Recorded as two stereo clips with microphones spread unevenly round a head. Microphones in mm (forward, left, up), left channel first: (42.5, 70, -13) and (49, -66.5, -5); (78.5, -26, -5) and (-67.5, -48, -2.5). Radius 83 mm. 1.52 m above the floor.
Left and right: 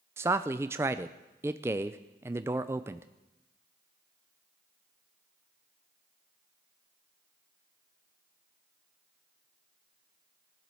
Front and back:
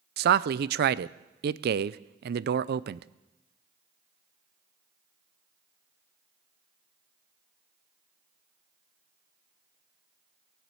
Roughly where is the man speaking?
Behind.